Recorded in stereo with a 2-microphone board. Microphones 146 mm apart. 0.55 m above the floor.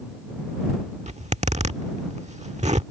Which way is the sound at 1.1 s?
50° right (ahead or behind).